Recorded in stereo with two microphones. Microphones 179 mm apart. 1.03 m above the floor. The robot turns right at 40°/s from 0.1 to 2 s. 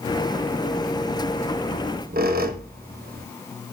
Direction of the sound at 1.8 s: 50° right (ahead or behind).